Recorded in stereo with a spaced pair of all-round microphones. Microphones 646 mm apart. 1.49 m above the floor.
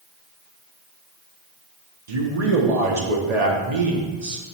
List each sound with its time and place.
2.1 s a man speaking: 90° right, 1.4 m